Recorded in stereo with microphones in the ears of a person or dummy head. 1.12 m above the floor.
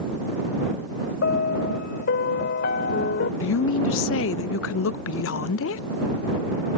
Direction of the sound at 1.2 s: 60° left (ahead or behind).